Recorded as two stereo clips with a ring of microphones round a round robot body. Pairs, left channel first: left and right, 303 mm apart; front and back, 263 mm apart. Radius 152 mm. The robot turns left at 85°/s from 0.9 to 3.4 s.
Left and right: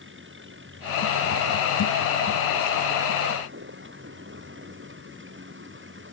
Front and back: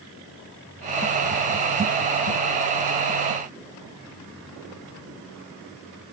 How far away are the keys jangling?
I don't hear keys jangling.